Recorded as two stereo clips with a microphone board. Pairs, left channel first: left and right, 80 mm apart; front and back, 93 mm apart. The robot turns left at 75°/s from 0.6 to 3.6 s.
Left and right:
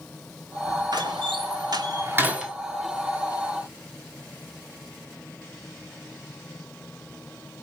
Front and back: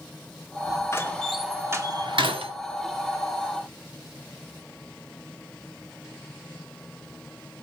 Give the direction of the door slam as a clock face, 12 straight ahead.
2 o'clock.